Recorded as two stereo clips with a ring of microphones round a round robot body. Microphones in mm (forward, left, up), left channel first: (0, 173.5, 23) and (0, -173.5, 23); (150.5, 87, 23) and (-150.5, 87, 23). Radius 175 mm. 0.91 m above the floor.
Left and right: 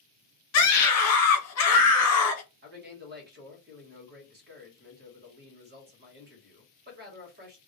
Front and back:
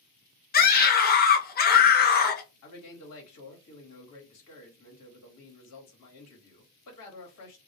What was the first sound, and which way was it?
A scream, 55° left.